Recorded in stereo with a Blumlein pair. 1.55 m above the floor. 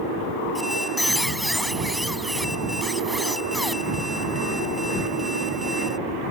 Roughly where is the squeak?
Ahead.